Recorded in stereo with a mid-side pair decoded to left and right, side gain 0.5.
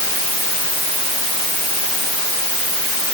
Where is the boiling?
No boiling in this recording.